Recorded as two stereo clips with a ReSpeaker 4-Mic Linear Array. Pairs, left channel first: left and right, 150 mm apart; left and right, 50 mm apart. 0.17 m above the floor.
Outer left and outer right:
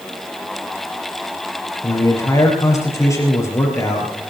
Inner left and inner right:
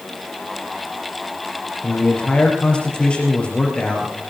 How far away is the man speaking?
About 4.5 m.